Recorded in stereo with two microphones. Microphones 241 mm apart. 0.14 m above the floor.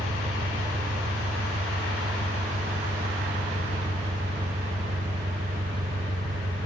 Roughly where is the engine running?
Right.